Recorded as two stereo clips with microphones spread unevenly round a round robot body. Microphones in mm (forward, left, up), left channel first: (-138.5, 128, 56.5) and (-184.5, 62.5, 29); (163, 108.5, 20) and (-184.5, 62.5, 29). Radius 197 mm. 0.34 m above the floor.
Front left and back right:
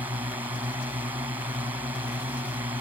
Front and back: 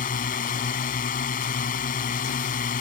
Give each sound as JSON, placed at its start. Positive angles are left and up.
{"t": 0.0, "sound": "a drone", "azimuth_deg": -60}